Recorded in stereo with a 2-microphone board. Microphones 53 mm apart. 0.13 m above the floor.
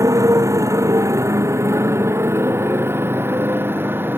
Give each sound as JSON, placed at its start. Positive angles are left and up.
{"t": 0.0, "sound": "a motorcycle", "side_deg": -80}